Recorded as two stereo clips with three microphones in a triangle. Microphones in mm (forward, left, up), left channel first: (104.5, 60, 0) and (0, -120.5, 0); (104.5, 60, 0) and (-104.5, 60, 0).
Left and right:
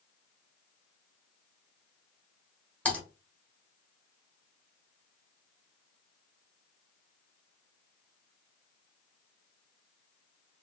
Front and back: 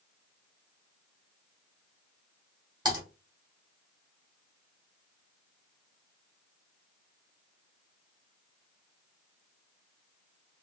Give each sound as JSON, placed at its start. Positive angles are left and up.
{"t": 2.9, "sound": "typing on a keyboard", "azimuth_deg": 135, "distance_m": 1.3}